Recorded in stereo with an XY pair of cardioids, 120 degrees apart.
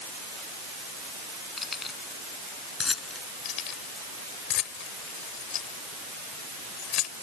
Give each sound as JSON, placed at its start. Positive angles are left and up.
{"t": 1.6, "sound": "keys jangling", "azimuth_deg": 25}
{"t": 3.5, "sound": "keys jangling", "azimuth_deg": 70}